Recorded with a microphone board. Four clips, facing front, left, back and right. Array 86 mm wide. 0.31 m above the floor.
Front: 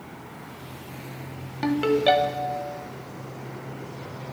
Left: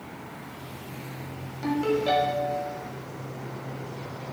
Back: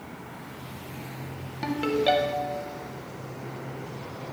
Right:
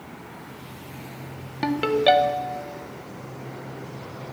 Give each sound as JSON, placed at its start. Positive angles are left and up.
{"t": 1.6, "sound": "a ringtone", "azimuth_deg": -70, "distance_m": 0.6}